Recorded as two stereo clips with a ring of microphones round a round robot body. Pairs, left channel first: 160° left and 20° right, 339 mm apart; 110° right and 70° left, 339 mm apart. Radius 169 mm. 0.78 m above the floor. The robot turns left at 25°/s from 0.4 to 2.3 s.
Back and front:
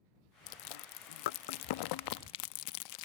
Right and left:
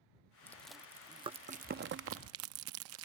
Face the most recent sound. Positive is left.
turn(degrees=120)